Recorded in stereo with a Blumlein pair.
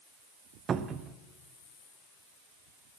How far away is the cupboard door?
About 0.5 m.